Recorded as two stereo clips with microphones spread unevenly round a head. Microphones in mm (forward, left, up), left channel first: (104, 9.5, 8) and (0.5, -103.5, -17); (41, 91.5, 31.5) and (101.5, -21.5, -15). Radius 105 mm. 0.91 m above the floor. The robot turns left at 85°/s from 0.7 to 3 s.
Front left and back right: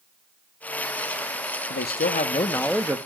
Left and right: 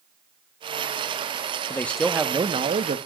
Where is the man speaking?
45° left, 1.5 m; by 3.0 s 65° right, 1.5 m.